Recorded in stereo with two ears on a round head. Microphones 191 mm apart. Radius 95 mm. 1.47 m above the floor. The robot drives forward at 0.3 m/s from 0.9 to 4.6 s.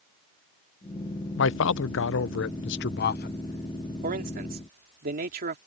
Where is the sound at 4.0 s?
40° right (ahead or behind); by 5.6 s 45° right (ahead or behind).